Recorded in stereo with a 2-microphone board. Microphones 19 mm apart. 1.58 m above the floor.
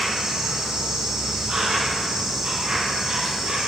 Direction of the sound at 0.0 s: 45° right (ahead or behind).